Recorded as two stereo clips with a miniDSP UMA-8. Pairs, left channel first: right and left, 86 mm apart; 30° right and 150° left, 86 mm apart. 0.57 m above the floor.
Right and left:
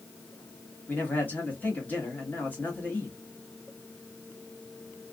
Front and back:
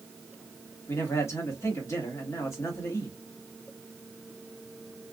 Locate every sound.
0.9 s a man speaking: 40° right, 1.4 m